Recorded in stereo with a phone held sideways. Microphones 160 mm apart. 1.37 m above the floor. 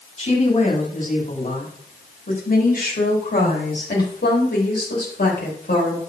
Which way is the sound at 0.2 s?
45° left (ahead or behind).